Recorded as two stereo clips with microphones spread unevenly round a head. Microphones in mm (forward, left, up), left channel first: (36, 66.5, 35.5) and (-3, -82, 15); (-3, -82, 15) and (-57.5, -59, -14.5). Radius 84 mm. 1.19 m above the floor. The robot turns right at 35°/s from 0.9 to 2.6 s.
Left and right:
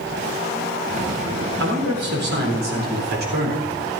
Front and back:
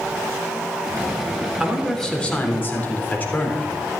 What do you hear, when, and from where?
1.6 s a man speaking: 120° right, 3.5 m; by 3.7 s 85° right, 3.5 m